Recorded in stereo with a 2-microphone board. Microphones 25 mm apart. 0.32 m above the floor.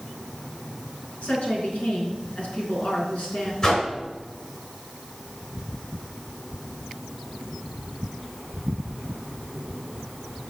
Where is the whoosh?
30° left (ahead or behind), 4 m.